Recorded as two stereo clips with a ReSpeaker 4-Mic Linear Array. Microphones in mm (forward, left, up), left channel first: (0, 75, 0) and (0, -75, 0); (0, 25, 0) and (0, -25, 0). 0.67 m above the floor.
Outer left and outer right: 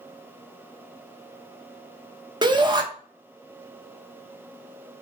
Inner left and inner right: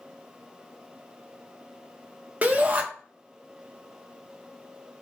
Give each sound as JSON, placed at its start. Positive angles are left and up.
{"t": 2.4, "sound": "a shout", "side_deg": -30, "distance_m": 0.8}